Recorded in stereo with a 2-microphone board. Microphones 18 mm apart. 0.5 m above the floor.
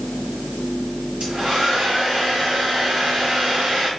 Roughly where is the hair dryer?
Right.